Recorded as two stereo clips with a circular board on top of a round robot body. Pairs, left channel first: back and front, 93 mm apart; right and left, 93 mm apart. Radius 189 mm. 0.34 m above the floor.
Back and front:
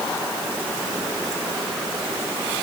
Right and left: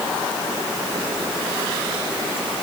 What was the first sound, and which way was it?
Only background noise.